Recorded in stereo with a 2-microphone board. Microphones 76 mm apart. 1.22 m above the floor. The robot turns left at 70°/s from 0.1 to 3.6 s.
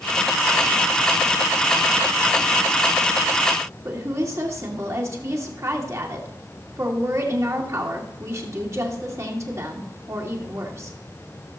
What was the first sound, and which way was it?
A woman speaking, 40° right (ahead or behind).